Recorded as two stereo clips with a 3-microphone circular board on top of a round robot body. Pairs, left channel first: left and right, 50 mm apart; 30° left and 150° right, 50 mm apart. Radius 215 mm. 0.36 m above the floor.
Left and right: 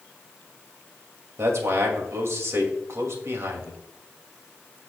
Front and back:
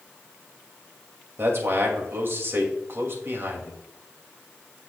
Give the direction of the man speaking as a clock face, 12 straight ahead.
4 o'clock.